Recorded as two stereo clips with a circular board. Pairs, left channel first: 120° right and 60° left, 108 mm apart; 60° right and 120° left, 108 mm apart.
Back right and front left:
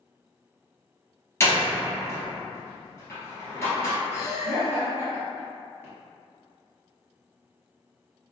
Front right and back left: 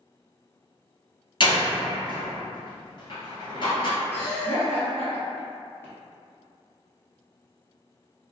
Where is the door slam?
60° right, 1.2 m.